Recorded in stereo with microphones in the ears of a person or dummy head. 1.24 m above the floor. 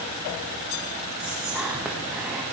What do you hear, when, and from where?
1.2 s whispering: 5° right (ahead or behind), 1.7 m